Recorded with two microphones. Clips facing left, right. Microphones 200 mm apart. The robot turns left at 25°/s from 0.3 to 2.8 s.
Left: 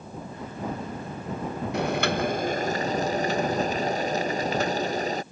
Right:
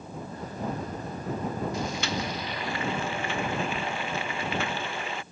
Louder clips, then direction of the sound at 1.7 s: Left 6 dB; 65° left (ahead or behind).